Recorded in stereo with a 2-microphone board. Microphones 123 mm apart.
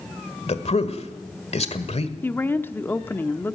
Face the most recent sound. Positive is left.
turn(degrees=20)  # may be behind; listen again after turning